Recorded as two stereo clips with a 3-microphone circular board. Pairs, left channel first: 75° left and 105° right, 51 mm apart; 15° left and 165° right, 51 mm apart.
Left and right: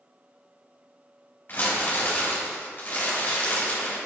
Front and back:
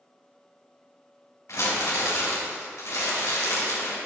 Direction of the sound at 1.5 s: 20° left.